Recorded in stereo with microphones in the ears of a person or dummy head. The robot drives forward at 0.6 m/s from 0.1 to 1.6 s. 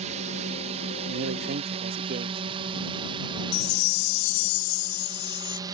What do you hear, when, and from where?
0.0 s a drone: 35° right (ahead or behind); by 5.8 s 20° right (ahead or behind)
1.1 s a man speaking: 65° right (ahead or behind); by 2.4 s 45° right (ahead or behind)
3.5 s a chime: 60° left (ahead or behind)